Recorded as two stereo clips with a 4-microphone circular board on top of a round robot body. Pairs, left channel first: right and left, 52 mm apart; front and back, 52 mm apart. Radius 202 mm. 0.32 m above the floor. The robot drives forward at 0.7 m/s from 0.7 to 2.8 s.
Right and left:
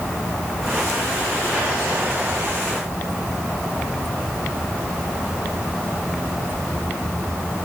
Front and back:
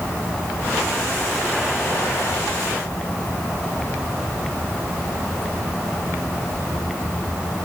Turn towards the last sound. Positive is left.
No sound to turn to.